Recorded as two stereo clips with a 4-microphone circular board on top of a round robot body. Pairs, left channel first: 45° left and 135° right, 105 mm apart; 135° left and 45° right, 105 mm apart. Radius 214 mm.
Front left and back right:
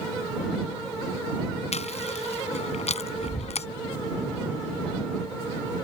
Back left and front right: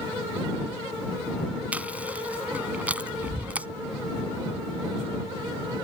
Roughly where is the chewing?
Ahead left.